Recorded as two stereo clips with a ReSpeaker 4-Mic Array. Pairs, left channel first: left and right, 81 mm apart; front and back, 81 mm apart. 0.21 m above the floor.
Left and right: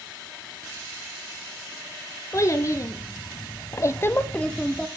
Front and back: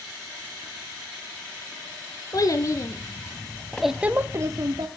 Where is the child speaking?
40° left, 1.6 m; by 4.9 s 175° left, 1.1 m.